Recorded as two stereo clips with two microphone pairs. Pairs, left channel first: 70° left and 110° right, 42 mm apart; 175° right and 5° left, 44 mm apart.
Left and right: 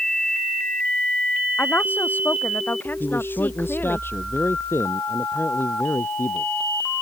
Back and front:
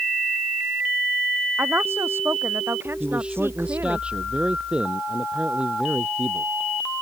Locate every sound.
1.6 s a woman speaking: 30° left
3.0 s a man speaking: 70° left